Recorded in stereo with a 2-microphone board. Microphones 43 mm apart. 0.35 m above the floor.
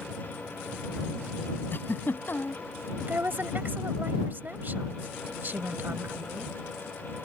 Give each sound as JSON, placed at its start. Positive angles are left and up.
{"t": 1.7, "sound": "a giggle", "side_deg": 50}
{"t": 3.0, "sound": "a woman speaking", "side_deg": -50}